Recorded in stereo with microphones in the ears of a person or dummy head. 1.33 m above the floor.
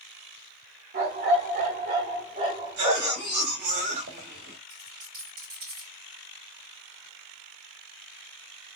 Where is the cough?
55° right (ahead or behind), 2 m.